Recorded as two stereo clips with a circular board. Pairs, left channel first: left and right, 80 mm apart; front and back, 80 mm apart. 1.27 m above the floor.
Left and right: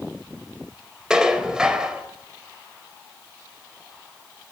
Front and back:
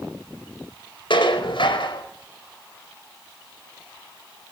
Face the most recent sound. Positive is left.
turn(degrees=-10)